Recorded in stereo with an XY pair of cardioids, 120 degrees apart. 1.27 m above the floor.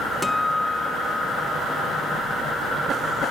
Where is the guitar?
5° left, 0.6 m.